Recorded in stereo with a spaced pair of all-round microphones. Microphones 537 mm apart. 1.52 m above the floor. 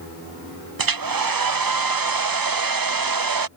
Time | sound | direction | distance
0.8 | a hair dryer | 40° right (ahead or behind) | ?